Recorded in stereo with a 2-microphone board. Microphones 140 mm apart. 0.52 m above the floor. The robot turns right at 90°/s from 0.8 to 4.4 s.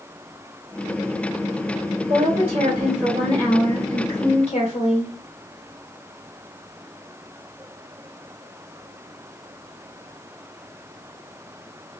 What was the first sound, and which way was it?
A woman speaking, 105° right.